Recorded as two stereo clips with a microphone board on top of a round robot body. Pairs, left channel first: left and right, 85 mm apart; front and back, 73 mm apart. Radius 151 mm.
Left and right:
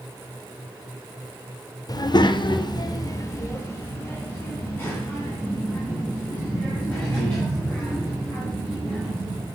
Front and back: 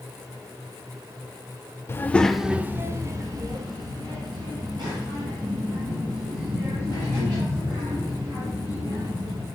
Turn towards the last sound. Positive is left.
turn(degrees=165)